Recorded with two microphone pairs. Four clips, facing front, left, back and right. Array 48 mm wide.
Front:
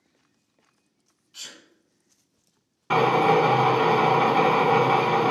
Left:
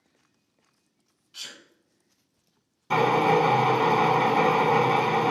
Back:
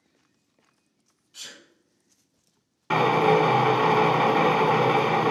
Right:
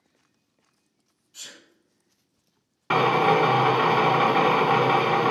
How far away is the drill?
About 1.1 m.